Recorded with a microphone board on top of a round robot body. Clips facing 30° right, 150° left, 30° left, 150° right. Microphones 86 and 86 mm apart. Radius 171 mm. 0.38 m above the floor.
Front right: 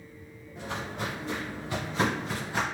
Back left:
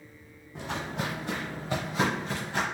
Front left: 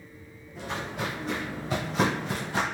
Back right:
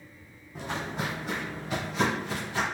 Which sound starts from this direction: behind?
Footsteps, at 0.6 s.